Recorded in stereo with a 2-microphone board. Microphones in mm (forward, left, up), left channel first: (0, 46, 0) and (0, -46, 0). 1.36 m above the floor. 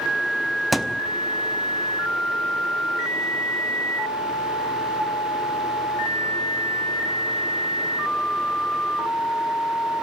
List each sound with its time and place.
0.7 s a thud: centre (ahead or behind), 0.9 m